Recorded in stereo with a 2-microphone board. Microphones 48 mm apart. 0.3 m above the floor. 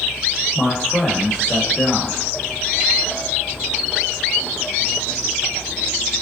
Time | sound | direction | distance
0.6 | a man speaking | 20° left (ahead or behind) | 0.9 m